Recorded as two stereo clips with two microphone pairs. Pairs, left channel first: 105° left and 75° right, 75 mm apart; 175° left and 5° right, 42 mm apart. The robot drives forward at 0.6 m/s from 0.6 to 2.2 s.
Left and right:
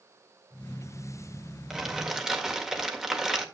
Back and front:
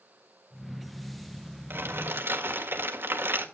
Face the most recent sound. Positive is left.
turn(degrees=5)